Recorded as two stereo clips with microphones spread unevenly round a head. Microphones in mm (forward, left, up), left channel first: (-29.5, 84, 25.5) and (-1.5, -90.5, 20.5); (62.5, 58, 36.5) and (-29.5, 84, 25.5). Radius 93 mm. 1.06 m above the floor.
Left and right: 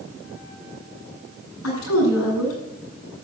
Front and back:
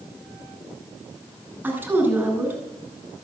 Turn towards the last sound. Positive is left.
turn(degrees=95)